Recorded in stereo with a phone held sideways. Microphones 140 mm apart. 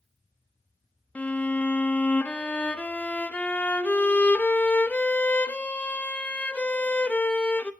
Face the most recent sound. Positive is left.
turn(degrees=10)  # may be behind; listen again after turning